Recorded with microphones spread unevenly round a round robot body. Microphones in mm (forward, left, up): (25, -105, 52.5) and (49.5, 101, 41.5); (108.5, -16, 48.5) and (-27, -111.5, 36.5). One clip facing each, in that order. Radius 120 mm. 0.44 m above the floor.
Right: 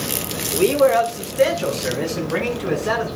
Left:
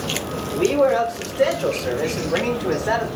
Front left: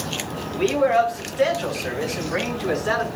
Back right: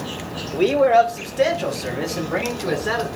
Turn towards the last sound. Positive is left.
turn(degrees=-105)